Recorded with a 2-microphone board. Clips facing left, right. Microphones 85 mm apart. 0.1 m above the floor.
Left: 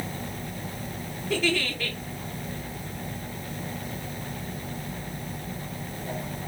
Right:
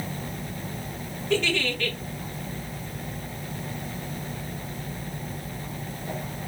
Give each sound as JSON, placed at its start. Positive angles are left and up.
{"t": 1.3, "sound": "a giggle", "side_deg": 5, "distance_m": 1.8}